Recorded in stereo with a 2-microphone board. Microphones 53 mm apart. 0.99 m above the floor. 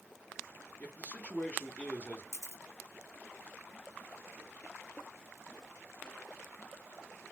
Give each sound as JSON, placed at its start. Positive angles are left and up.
{"t": 0.8, "sound": "a man speaking", "side_deg": 25, "distance_m": 1.1}
{"t": 2.3, "sound": "a camera shutter", "side_deg": 60, "distance_m": 0.6}